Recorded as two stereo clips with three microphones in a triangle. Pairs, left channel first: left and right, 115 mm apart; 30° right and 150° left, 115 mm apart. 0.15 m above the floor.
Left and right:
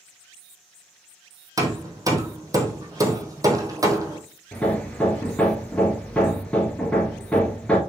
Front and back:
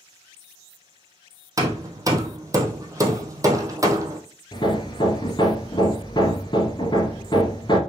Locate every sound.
1.6 s hammering: 150° right, 1.4 m
4.5 s hammering: 10° left, 1.5 m